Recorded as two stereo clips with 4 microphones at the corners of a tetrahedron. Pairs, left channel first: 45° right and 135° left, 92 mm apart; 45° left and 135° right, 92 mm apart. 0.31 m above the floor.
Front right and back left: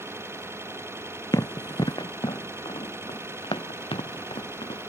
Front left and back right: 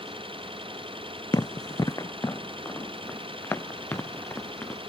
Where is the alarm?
I don't hear an alarm.